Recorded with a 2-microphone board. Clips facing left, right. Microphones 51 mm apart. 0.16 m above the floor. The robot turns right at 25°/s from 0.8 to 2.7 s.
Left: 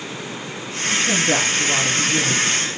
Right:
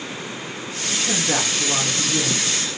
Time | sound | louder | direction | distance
0.9 | a man speaking | left 4 dB | 160° left | 2 m